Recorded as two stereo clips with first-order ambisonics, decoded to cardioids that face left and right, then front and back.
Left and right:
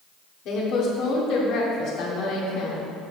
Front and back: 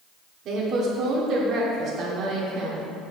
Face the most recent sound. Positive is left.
turn(degrees=130)